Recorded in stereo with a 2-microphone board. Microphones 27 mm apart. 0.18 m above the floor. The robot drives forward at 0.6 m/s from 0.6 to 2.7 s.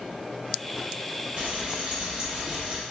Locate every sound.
1.4 s frying: 45° right (ahead or behind), 2 m; by 2.8 s 55° right (ahead or behind), 1.8 m